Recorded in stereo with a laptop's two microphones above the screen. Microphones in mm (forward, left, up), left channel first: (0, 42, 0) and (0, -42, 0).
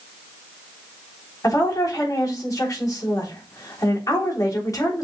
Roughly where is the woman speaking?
Left.